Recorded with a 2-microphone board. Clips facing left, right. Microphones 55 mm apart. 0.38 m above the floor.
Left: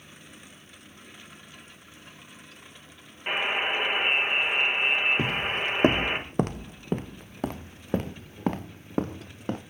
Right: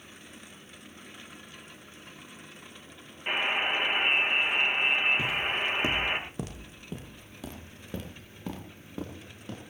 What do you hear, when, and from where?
3.3 s a buzzer: 10° left (ahead or behind), 7.5 m
5.2 s footsteps: 50° left (ahead or behind), 0.5 m